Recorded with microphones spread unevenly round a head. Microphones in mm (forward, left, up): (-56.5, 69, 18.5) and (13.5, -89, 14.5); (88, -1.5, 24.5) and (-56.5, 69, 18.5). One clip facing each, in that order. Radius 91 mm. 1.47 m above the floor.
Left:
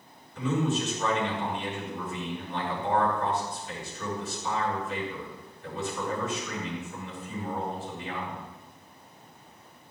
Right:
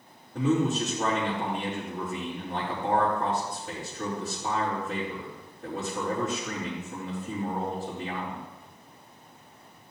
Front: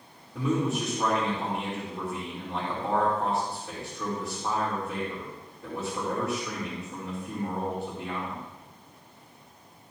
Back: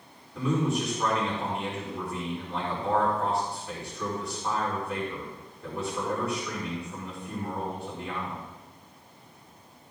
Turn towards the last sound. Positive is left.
turn(degrees=-100)